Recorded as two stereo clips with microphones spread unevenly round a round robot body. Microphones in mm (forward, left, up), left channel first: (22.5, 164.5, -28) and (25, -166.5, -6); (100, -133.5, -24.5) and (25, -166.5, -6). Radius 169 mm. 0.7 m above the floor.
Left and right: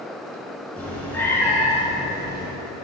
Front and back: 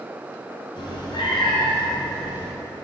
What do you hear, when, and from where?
0.8 s a cat meowing: 5° left, 3.5 m; by 2.5 s 10° left, 4 m